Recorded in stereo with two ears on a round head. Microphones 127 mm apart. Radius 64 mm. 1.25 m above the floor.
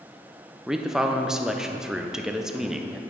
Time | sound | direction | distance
0.7 | a man speaking | 5° right (ahead or behind) | 0.6 m